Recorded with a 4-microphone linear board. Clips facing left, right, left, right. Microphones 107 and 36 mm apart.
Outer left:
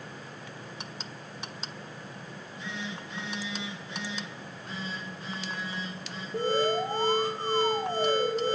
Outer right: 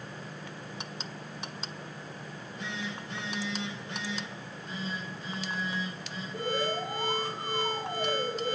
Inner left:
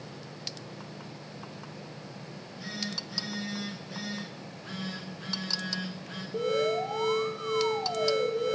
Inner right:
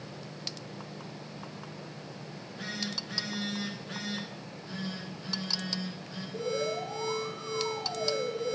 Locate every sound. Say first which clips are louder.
2.3 s a phone buzzing: even, inner right 2 dB; 65° right (ahead or behind), 4.5 m
4.3 s a phone buzzing: even, inner left 1 dB; 75° left (ahead or behind), 3 m
6.3 s an alarm: outer left 5 dB, inner left 5 dB; 30° left (ahead or behind), 1.7 m